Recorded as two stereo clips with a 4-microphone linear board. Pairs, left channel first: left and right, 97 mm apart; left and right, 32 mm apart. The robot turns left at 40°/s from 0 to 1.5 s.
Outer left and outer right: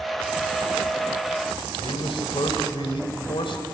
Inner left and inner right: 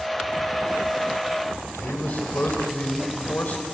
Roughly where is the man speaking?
Left.